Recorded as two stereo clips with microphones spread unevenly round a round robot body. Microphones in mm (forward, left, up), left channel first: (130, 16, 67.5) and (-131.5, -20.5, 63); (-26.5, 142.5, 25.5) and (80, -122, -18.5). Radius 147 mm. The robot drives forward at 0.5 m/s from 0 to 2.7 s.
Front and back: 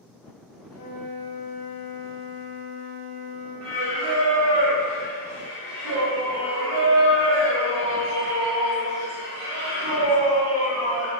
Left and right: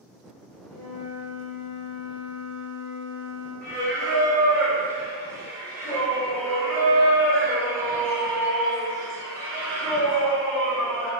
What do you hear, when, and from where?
0.7 s a flute: 45° left, 1.3 m; by 3.5 s 100° left, 0.9 m
3.6 s singing: 155° right, 0.8 m